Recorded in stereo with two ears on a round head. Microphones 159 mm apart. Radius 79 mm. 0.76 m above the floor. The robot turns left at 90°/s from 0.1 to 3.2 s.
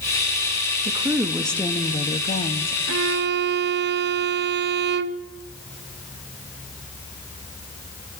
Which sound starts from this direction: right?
A violin, at 2.9 s.